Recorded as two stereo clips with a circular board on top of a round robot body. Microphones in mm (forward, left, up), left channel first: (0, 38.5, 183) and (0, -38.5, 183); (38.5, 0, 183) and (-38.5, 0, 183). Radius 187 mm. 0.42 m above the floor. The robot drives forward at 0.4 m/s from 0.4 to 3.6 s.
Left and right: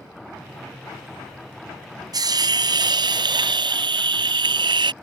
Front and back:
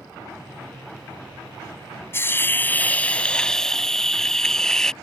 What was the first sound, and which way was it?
A hiss, 60° right.